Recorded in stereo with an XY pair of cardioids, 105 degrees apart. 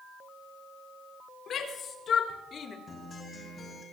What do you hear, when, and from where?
1.5 s a shout: 60° left, 3.5 m; by 2.8 s 50° left, 2.5 m
2.9 s a guitar: 35° left, 5.5 m